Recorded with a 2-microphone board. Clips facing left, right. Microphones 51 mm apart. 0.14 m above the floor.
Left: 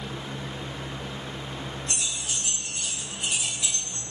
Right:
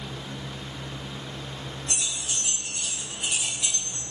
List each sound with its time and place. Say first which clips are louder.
1.9 s keys jangling: even; 30° left (ahead or behind), 2 m; by 4.0 s 10° right (ahead or behind), 1.9 m